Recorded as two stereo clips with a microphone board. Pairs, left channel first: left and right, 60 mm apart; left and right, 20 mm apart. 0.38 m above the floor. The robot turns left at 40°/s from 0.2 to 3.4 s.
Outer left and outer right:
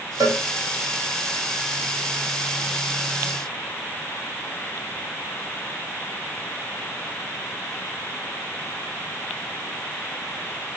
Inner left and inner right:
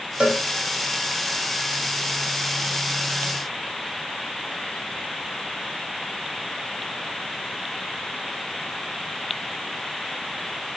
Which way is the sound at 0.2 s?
70° right (ahead or behind).